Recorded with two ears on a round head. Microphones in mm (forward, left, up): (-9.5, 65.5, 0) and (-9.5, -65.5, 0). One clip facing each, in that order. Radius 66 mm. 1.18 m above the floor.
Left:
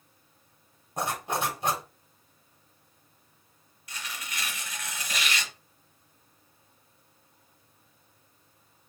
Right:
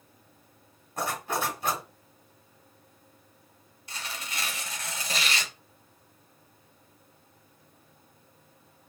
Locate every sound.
1.0 s a zipper: 15° left (ahead or behind), 1.8 m
3.9 s tearing paper: 30° right (ahead or behind), 1.1 m